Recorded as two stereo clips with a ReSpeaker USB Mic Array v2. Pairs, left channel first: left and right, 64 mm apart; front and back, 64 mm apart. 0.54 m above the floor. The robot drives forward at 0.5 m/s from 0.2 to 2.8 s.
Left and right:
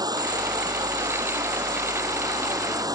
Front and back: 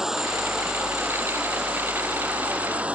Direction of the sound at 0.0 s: 95° right.